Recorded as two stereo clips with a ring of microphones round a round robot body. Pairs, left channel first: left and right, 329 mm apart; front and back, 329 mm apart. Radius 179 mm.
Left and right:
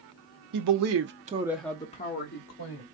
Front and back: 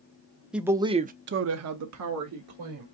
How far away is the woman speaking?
About 1.0 m.